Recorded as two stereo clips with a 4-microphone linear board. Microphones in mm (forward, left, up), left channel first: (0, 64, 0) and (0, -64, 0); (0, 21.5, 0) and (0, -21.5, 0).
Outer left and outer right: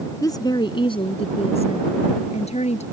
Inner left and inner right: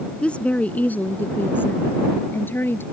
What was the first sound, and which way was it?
A woman speaking, 30° left (ahead or behind).